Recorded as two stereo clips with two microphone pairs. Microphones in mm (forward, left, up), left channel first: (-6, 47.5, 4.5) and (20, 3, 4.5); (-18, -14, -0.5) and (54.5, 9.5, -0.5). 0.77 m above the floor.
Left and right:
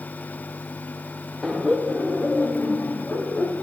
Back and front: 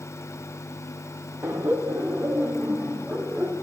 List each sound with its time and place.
1.4 s laughter: 35° left, 1.1 m; by 3.5 s 85° left, 2 m